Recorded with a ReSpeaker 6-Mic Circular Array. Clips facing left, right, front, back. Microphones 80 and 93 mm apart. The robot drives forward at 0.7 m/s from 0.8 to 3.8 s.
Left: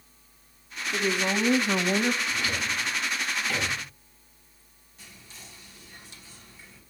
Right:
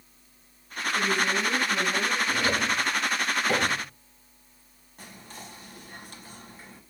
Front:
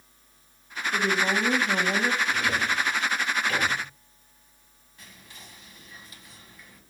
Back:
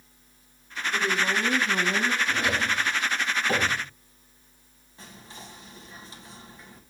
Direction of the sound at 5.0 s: 120° right.